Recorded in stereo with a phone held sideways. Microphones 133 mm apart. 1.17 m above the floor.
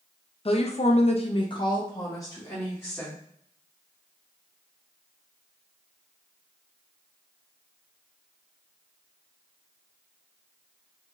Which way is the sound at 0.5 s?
45° left (ahead or behind).